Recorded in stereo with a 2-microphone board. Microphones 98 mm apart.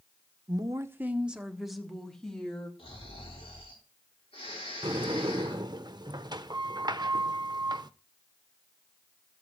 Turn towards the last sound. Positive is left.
turn(degrees=-45)  # may be behind; listen again after turning